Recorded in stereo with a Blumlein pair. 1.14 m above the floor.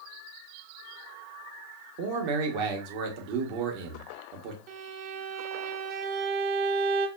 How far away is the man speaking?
About 0.8 m.